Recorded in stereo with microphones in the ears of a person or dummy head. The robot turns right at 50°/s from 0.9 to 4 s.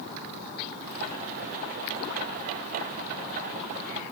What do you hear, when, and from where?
Only background noise.